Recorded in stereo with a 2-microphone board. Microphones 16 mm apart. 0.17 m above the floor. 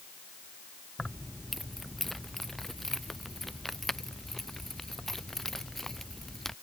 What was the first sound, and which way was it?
Keys jangling, 15° left (ahead or behind).